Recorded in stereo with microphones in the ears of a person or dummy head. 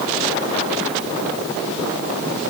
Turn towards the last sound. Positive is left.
No sound to turn to.